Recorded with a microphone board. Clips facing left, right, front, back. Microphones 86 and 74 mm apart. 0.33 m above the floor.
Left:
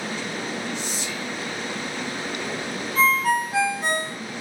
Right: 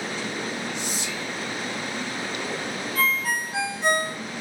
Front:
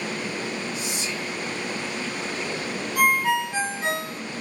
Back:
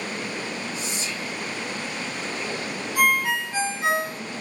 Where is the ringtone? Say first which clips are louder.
Left 7 dB, front 1 dB; 60° left, 1.5 m.